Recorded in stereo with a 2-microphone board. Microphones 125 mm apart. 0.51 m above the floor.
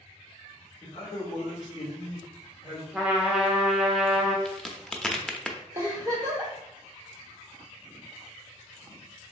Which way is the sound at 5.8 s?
20° right (ahead or behind).